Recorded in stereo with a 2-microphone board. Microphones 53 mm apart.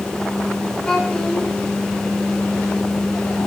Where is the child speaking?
10° left (ahead or behind), 1.7 m.